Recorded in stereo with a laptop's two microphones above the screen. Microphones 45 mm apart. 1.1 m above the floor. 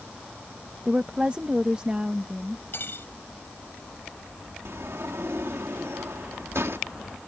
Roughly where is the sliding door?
Right.